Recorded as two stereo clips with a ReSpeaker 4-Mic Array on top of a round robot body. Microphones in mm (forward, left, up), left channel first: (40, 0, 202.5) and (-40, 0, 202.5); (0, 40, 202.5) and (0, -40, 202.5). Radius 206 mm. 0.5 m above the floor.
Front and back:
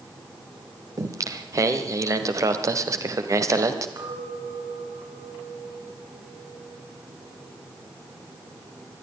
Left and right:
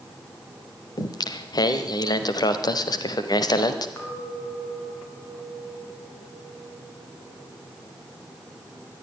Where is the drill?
I don't hear a drill.